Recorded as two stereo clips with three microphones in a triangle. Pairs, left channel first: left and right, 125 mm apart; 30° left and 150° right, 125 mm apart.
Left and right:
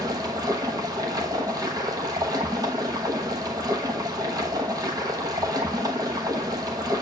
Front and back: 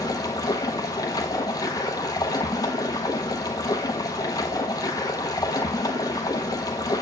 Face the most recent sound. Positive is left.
turn(degrees=-30)